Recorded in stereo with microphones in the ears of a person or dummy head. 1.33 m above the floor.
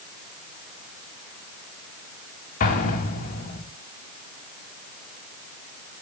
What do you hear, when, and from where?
2.6 s an explosion: 45° left (ahead or behind), 2.5 m